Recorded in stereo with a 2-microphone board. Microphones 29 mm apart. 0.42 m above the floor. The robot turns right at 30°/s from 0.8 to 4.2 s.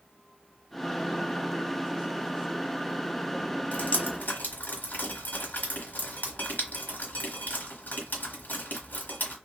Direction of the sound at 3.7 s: 60° left (ahead or behind).